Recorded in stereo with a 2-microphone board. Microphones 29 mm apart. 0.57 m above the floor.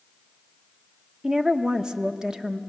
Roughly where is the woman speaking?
Right.